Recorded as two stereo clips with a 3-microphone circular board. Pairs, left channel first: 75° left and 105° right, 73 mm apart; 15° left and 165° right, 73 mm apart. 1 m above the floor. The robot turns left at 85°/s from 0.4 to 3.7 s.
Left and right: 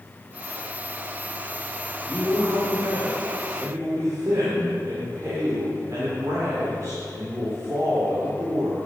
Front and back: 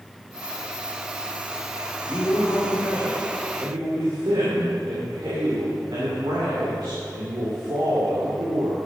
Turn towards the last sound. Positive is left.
turn(degrees=-145)